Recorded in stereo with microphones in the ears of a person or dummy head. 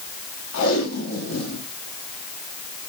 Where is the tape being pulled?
80° left, 2.5 m.